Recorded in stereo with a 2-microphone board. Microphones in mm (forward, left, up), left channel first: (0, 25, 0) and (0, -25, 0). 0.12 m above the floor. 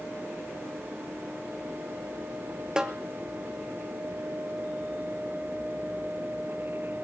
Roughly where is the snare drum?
Centre.